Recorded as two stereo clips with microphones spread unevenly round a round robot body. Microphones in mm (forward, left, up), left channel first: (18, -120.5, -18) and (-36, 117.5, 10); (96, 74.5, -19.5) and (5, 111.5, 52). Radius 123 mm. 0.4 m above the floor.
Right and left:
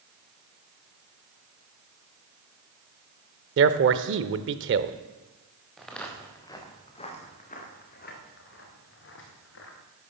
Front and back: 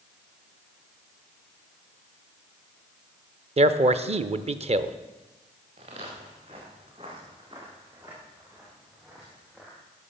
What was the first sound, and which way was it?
A man speaking, 115° left.